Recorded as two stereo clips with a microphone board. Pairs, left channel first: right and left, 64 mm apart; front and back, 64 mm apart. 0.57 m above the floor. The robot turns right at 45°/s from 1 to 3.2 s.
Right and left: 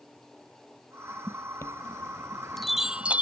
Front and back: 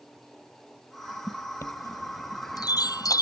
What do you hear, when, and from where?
1.6 s a chime: 50° right; by 3.2 s 25° left